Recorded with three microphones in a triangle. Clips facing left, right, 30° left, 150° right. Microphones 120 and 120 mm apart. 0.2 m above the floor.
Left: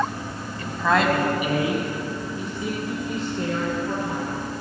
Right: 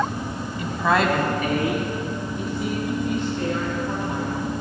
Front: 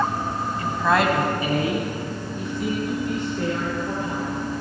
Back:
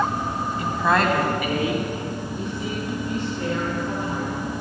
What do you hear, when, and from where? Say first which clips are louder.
0.6 s a woman speaking: even, even; 130° right, 1.4 m; by 4.5 s 35° left, 5.5 m